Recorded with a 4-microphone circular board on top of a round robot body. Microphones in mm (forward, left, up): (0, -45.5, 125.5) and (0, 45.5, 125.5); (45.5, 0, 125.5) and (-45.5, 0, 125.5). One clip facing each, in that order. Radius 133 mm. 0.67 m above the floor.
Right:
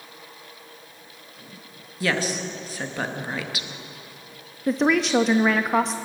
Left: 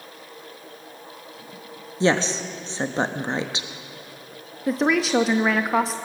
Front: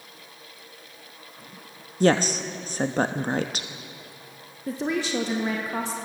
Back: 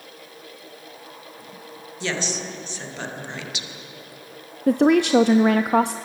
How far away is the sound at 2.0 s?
About 1.1 m.